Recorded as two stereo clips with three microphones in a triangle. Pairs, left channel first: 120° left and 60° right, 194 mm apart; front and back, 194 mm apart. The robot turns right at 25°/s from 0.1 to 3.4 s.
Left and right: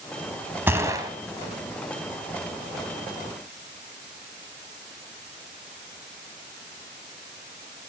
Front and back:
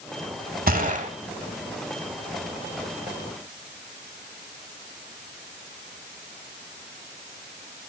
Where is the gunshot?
140° right, 1.2 m; by 1.1 s 125° right, 1.2 m.